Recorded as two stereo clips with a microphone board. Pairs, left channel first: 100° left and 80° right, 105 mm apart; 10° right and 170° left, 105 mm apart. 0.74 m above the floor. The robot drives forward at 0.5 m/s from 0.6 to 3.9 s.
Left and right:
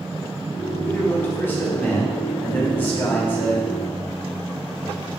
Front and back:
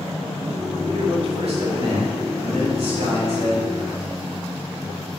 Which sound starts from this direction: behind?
A man speaking, at 0.9 s.